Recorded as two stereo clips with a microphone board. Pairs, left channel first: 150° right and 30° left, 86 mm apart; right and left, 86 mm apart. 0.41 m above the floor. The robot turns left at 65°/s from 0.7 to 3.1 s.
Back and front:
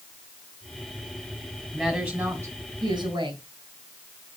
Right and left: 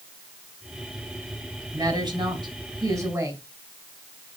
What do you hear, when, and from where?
1.7 s a woman speaking: 130° left, 3 m; by 3.4 s 40° left, 3 m